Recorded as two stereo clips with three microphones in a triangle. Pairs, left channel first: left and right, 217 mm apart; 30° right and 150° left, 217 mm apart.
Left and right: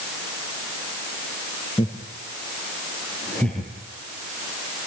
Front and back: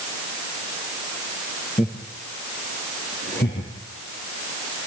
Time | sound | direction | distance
1.8 | laughter | 20° left | 4.5 m